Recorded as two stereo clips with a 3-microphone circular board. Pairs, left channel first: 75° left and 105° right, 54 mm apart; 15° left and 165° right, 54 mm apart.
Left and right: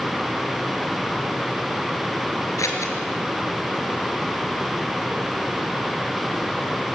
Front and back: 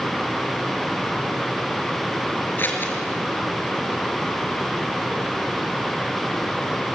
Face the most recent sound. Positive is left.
turn(degrees=65)